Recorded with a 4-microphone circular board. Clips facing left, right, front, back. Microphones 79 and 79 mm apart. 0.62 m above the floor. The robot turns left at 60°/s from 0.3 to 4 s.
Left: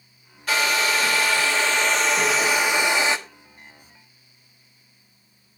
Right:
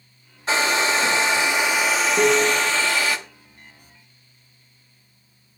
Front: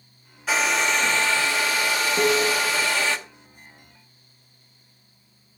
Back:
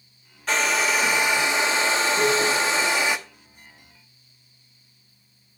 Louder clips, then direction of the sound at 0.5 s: Right 2 dB, even; 75° right.